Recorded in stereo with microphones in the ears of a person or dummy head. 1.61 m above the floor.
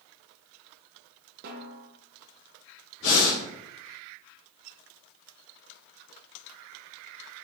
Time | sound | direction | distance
1.4 | a snare drum | 45° right (ahead or behind) | 1.0 m
3.0 | breathing | 80° left | 3.5 m